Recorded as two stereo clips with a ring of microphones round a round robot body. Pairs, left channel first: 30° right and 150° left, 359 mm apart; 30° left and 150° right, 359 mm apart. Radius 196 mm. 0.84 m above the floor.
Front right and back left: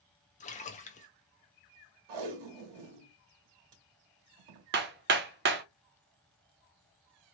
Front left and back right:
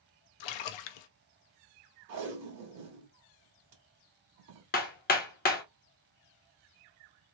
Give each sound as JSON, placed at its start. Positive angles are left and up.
{"t": 0.4, "sound": "a splash", "azimuth_deg": 40, "distance_m": 0.5}
{"t": 2.1, "sound": "tape being pulled", "azimuth_deg": 165, "distance_m": 1.4}
{"t": 4.7, "sound": "hammering", "azimuth_deg": 95, "distance_m": 0.5}